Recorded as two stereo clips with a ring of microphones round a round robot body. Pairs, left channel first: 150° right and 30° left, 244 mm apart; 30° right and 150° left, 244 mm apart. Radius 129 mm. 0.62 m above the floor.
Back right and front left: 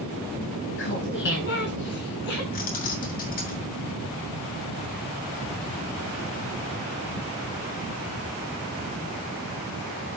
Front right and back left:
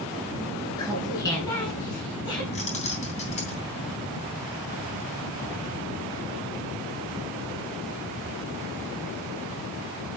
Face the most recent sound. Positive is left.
turn(degrees=-95)